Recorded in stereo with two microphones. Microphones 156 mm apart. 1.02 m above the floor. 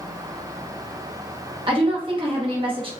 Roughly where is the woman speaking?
Right.